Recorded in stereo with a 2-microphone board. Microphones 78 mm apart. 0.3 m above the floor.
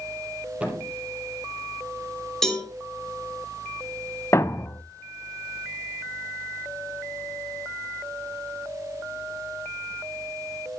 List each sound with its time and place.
0.6 s a thud: 15° right (ahead or behind), 4.5 m
2.4 s a cowbell: 5° left (ahead or behind), 5 m
4.3 s a thud: 35° left (ahead or behind), 0.6 m